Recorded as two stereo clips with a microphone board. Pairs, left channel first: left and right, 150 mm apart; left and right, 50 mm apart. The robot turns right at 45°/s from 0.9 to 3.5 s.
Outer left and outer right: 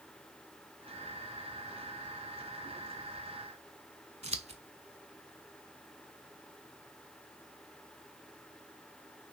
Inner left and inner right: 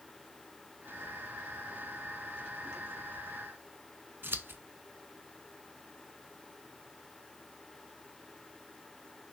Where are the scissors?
45° right (ahead or behind), 0.5 m.